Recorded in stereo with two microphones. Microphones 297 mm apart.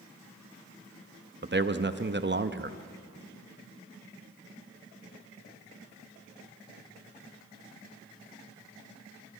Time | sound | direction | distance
1.4 | a man speaking | 40° right (ahead or behind) | 0.6 m